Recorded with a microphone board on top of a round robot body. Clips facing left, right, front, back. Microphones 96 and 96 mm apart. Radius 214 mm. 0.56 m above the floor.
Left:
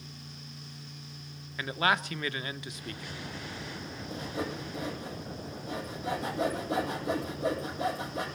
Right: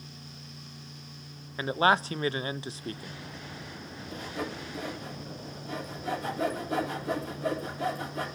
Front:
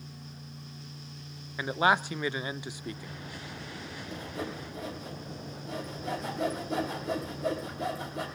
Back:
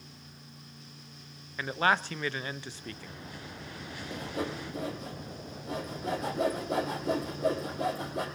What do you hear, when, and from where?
1.6 s a man speaking: 65° right, 0.6 m
4.1 s sawing: 155° left, 6.5 m